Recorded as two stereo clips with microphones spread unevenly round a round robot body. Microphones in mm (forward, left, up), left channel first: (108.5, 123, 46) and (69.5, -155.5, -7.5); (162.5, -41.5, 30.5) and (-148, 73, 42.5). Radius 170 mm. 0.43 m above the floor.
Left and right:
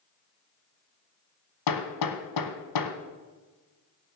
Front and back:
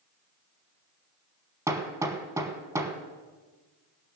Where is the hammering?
80° left, 1.1 m.